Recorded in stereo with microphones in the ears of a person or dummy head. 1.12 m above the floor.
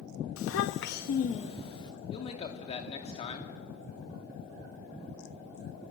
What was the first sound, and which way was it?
A child speaking, 85° left.